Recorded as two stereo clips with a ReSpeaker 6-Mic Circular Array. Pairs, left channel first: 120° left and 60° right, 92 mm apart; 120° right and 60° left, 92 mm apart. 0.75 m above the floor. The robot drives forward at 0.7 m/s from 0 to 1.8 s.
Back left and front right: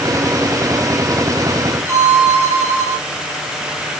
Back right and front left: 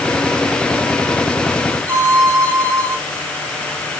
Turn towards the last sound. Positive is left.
turn(degrees=0)